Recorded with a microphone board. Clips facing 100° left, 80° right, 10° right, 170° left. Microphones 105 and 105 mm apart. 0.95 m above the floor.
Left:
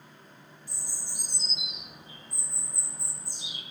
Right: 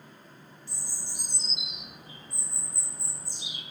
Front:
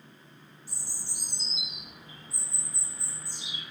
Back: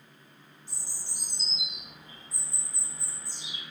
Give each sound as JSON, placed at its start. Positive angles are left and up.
{"t": 0.7, "sound": "a bird", "azimuth_deg": -90, "distance_m": 1.0}